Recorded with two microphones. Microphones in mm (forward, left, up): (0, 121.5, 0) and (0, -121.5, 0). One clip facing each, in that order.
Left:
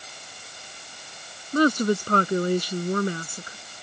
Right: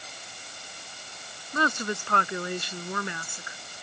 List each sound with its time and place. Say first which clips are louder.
1.5 s a woman speaking: left 10 dB; 40° left (ahead or behind)